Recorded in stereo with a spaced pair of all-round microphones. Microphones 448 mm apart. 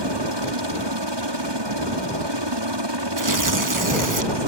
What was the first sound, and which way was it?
A helicopter, 70° right (ahead or behind).